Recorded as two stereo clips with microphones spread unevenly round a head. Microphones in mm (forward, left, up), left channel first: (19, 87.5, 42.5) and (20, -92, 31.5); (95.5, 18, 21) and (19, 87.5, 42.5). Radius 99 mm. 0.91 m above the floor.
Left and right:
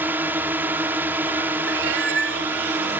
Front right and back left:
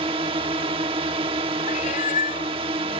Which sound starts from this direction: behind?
A drone, at 0.0 s.